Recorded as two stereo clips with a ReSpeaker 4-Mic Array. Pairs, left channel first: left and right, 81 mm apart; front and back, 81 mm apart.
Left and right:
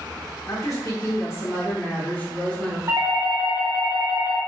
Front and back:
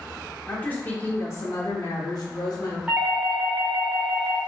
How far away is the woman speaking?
About 1.2 m.